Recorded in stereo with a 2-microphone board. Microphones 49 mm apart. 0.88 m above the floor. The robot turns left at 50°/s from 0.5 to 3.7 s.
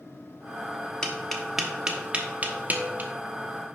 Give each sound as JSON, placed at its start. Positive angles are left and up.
{"t": 1.0, "sound": "tapping", "side_deg": 15, "distance_m": 1.2}